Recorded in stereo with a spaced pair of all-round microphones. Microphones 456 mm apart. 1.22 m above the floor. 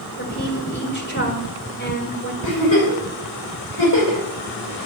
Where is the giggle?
80° left, 6.5 m.